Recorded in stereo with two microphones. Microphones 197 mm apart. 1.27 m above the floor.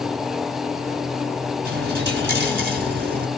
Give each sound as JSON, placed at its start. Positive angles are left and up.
{"t": 1.6, "sound": "a dropped coin", "side_deg": -60, "distance_m": 1.9}